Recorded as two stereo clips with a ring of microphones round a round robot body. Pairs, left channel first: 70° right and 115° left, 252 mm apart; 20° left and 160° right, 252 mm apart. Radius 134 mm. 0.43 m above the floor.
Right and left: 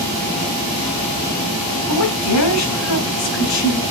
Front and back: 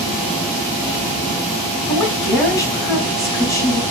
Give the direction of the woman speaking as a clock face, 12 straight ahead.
2 o'clock.